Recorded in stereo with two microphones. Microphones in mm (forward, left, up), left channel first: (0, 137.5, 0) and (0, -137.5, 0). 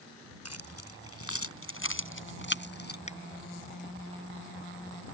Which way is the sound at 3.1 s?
25° left (ahead or behind).